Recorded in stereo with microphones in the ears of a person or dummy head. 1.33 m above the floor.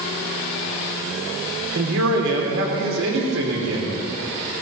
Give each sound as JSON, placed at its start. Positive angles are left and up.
{"t": 1.8, "sound": "a man speaking", "side_deg": -65, "distance_m": 4.5}